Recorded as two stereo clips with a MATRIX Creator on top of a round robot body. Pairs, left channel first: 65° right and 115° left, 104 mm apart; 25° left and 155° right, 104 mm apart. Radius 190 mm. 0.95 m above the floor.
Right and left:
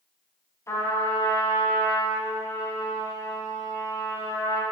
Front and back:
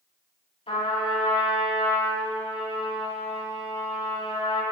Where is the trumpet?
5° right, 8 m.